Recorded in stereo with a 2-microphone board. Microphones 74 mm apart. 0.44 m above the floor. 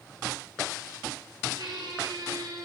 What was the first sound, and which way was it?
A squeak, 70° right (ahead or behind).